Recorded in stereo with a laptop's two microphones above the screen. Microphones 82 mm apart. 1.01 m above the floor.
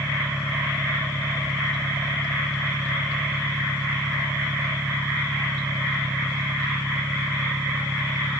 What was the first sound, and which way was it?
An engine running, 30° right (ahead or behind).